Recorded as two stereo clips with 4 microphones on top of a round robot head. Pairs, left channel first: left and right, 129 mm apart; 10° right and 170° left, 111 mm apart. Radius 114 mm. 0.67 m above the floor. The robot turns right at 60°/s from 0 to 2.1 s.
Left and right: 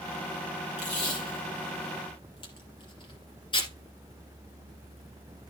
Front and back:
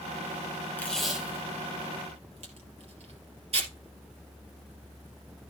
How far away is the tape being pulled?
About 3.5 m.